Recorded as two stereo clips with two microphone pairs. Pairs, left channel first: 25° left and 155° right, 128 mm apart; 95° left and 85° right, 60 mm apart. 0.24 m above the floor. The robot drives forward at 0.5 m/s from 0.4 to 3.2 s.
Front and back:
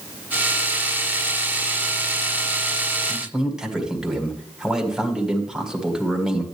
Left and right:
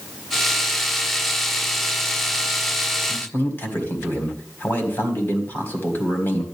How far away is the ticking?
I don't hear ticking.